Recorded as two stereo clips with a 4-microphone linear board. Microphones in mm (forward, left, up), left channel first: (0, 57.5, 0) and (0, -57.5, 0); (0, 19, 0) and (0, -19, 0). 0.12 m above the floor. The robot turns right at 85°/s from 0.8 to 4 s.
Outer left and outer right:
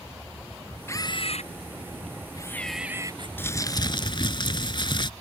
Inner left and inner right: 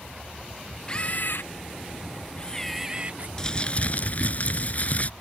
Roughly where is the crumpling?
Ahead left.